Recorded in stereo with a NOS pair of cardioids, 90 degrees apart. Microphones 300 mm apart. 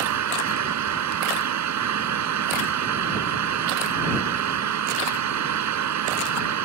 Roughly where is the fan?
Ahead right.